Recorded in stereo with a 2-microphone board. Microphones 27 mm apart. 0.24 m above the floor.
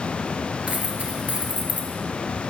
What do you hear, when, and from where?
0.7 s a dropped coin: 65° right (ahead or behind), 1.7 m